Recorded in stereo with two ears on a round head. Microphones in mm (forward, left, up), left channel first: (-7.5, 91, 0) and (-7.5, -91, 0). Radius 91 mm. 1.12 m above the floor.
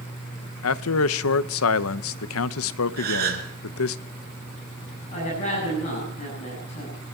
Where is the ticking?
I don't hear ticking.